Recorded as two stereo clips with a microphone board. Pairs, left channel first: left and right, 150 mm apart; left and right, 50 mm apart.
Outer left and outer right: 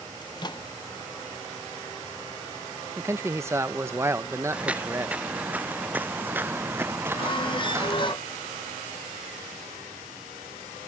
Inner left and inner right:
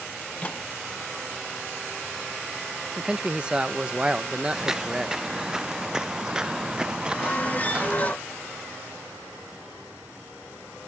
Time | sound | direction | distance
0.2 | a microwave | 30° left (ahead or behind) | ?
3.0 | a man speaking | 20° right (ahead or behind) | ?
4.5 | footsteps | 10° right (ahead or behind) | ?
7.1 | a squeak | 35° left (ahead or behind) | ?